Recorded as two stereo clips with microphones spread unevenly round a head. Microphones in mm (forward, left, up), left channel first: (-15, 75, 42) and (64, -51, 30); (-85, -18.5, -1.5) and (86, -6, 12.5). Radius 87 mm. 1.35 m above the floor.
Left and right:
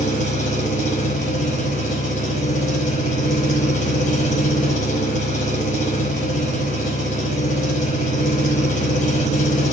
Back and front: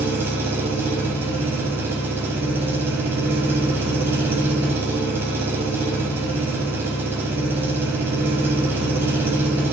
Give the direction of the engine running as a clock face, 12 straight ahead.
9 o'clock.